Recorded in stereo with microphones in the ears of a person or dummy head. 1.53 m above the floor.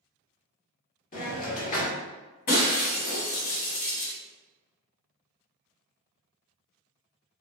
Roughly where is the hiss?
Left.